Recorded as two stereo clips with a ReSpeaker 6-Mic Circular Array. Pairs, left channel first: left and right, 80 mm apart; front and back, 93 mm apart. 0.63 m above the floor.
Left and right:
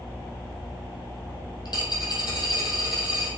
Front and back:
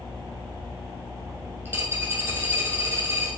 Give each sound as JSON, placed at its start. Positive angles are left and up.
{"t": 1.6, "sound": "a dropped coin", "azimuth_deg": 120, "distance_m": 3.5}